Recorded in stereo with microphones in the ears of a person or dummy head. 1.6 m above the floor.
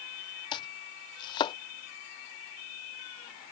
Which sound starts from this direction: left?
Chopping, at 0.5 s.